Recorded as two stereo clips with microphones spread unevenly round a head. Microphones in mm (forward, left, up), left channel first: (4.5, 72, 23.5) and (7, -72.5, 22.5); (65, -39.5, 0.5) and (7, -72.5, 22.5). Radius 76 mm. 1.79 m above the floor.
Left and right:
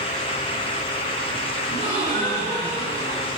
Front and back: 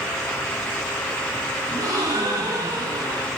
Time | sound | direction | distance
1.7 | a gasp | 125° right | 5.5 m